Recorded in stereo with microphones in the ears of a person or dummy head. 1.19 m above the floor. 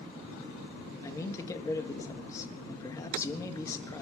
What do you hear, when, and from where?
1.0 s a man speaking: 15° left (ahead or behind), 1.7 m